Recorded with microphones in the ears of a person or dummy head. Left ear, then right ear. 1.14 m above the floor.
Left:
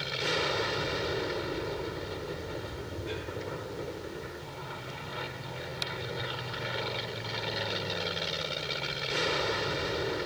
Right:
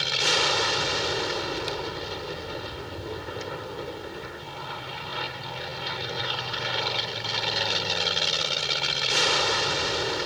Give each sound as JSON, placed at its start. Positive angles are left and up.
{"t": 0.0, "sound": "an aircraft", "side_deg": -35}